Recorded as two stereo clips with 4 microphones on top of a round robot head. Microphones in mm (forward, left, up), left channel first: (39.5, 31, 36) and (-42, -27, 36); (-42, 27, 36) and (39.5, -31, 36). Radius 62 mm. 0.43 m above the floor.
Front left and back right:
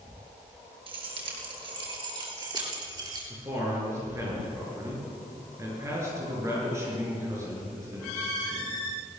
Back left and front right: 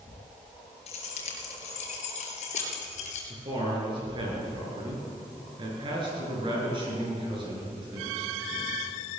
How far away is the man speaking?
About 8 m.